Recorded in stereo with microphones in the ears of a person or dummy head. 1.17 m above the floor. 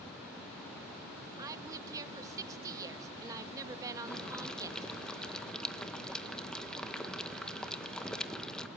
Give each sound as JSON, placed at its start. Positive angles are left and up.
{"t": 1.4, "sound": "a woman speaking", "side_deg": -20, "distance_m": 1.6}
{"t": 4.1, "sound": "boiling", "side_deg": 5, "distance_m": 1.4}